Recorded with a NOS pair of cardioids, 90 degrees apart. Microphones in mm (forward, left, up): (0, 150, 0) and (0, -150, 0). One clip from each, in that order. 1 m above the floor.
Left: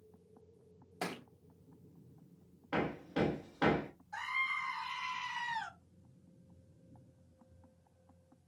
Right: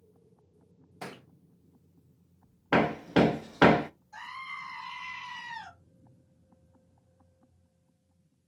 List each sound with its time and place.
1.0 s a thud: 25° left, 1.5 m
2.7 s hammering: 65° right, 0.6 m
4.1 s a scream: 25° left, 3.5 m